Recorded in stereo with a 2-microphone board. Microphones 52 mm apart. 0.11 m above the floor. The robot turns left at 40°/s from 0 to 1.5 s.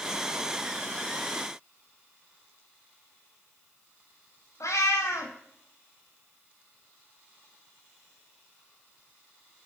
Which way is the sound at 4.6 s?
90° left.